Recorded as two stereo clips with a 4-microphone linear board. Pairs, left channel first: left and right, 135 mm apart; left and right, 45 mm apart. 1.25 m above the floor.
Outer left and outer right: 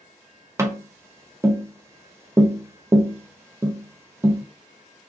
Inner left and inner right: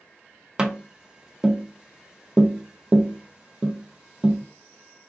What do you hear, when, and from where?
0.6 s tapping: 20° right (ahead or behind), 0.5 m